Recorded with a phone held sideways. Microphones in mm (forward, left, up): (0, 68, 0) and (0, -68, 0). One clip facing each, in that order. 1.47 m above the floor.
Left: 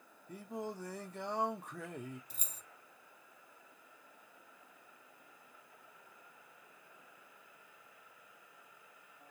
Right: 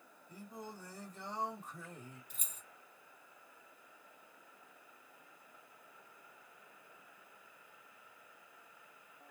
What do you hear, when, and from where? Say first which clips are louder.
0.3 s singing: left 7 dB; 70° left (ahead or behind), 0.8 m
2.3 s keys jangling: left 2 dB; 35° left (ahead or behind), 0.8 m